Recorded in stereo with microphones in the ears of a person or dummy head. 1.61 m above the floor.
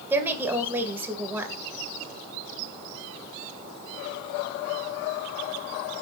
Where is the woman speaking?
10° right (ahead or behind), 1.9 m.